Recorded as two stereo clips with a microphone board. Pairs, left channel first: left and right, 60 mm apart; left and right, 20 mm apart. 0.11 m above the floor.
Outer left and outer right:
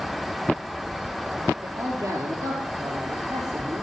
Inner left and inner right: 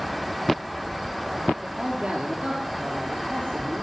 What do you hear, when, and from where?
1.6 s a man speaking: 55° right (ahead or behind), 2.5 m; by 3.8 s 65° right (ahead or behind), 4.5 m